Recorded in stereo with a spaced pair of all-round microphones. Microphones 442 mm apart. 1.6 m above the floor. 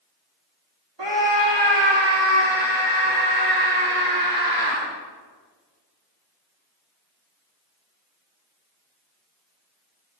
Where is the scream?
70° right (ahead or behind), 3.5 m; by 4.8 s 55° right (ahead or behind), 5.5 m.